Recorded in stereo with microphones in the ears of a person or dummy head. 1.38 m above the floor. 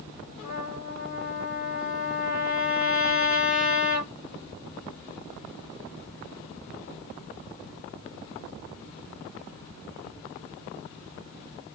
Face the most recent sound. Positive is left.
turn(degrees=40)  # may be behind; listen again after turning